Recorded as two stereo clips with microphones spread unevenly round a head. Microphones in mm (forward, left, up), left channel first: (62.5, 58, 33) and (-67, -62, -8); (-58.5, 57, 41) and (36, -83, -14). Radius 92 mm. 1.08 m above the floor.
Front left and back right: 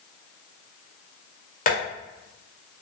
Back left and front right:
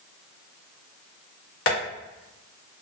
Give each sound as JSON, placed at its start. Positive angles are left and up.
{"t": 1.7, "sound": "tapping", "azimuth_deg": 95, "distance_m": 1.7}